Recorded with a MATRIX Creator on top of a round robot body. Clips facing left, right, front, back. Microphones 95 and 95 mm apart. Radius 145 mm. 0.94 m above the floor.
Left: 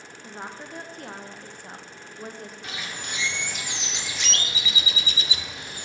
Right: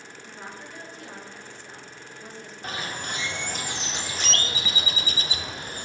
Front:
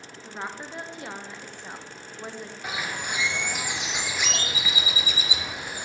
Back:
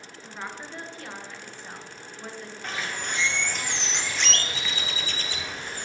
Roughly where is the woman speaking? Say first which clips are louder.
Left 4 dB, front 2 dB; left.